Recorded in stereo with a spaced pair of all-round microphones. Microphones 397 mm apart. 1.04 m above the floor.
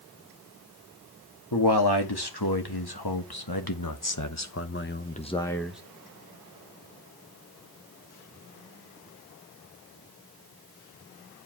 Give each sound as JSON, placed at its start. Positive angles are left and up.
{"t": 1.5, "sound": "a man speaking", "side_deg": 80, "distance_m": 2.0}